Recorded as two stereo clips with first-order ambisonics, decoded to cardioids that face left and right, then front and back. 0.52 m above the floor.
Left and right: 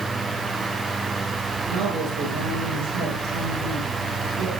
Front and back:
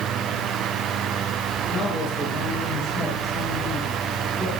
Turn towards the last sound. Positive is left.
turn(degrees=-85)